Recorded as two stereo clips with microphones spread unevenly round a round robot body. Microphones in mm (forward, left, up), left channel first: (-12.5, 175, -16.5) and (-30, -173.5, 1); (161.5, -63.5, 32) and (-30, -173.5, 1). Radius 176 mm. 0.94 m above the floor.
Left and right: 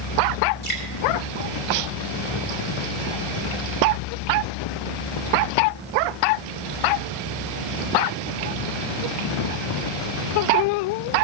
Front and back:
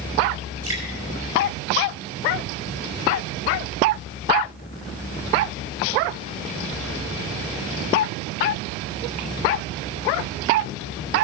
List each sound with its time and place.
0.6 s dripping: 125° left, 3.5 m